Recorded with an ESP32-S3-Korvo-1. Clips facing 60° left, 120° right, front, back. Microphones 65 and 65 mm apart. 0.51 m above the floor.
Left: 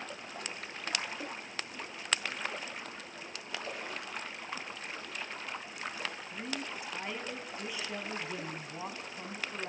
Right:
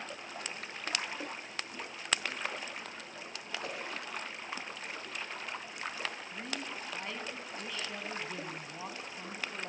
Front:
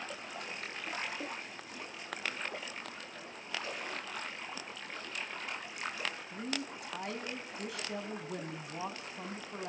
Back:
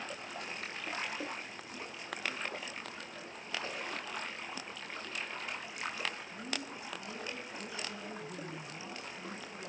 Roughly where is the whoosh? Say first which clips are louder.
Right 1 dB, even; behind right.